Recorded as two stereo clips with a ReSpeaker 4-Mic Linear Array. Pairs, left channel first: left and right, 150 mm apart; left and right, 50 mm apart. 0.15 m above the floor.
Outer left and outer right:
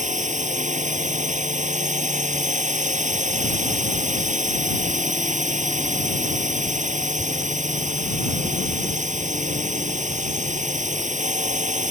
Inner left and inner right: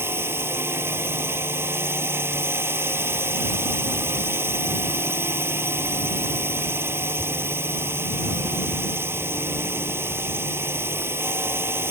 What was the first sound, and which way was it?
A drone, 55° right (ahead or behind).